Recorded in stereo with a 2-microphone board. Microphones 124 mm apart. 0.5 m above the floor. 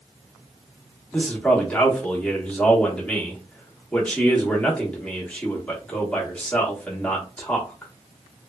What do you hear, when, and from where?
1.1 s a man speaking: 10° left (ahead or behind), 0.8 m